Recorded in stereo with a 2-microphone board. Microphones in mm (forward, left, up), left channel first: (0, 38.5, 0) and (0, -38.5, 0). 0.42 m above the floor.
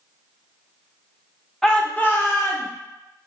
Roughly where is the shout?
Centre.